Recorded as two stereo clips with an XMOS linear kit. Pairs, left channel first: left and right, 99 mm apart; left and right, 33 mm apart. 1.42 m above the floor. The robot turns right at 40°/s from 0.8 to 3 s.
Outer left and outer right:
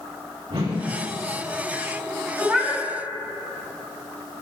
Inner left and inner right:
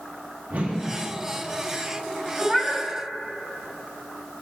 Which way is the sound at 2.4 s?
10° right (ahead or behind).